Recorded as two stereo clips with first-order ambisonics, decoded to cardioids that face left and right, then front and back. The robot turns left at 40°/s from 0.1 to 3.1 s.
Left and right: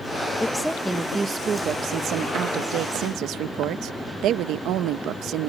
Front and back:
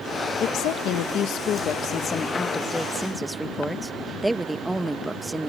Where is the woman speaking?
10° left; by 5.5 s 100° right.